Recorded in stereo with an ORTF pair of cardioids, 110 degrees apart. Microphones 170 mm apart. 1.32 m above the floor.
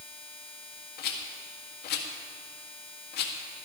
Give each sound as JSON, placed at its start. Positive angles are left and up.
{"t": 1.0, "sound": "a rattle", "azimuth_deg": 65, "distance_m": 1.7}